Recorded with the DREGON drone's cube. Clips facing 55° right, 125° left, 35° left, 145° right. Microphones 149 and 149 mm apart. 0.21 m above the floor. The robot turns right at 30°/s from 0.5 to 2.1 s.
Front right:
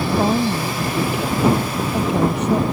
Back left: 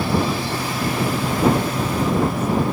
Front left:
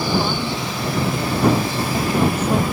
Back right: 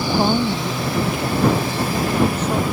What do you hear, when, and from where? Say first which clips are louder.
0.2 s a woman speaking: front right 4 dB, back right 4 dB; 95° right; by 2.8 s 45° right